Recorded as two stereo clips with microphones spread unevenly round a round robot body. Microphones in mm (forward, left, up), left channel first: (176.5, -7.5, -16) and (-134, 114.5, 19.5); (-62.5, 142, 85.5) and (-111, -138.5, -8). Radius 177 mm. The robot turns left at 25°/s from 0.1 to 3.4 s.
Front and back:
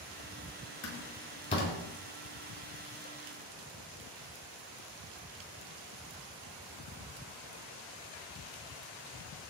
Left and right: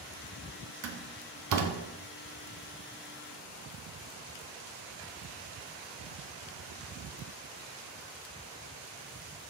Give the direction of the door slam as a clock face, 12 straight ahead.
3 o'clock.